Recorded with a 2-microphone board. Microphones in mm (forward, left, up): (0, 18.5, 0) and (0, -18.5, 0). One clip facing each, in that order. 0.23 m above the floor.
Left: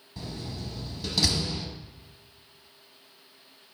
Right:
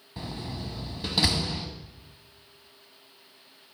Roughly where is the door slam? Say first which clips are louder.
Right 1 dB; right.